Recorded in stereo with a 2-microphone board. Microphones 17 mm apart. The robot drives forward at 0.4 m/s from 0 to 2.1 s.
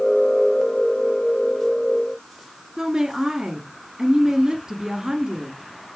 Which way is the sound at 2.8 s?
30° right (ahead or behind).